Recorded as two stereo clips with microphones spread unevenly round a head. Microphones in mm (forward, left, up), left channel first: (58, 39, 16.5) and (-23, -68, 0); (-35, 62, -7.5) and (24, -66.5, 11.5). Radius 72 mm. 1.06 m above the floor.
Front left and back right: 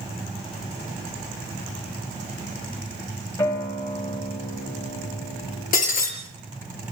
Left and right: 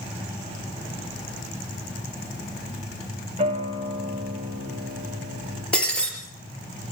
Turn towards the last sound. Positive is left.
turn(degrees=30)